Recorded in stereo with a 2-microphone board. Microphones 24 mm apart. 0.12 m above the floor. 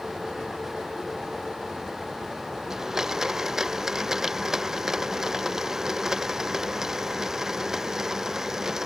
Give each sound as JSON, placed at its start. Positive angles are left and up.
{"t": 2.7, "sound": "a blender", "side_deg": -20}